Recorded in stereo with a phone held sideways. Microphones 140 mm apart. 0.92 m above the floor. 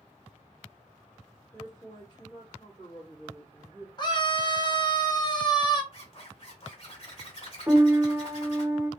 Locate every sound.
1.5 s a man speaking: 35° left (ahead or behind), 1.3 m
4.0 s a scream: 30° left (ahead or behind), 0.9 m
5.9 s a zipper: 45° left (ahead or behind), 1.5 m
7.7 s a piano: 20° right (ahead or behind), 0.6 m